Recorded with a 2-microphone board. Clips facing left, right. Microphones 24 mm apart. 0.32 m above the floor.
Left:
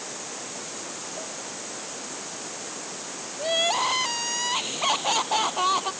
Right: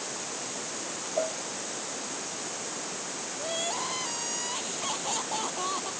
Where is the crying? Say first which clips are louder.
Left 10 dB; 40° left (ahead or behind).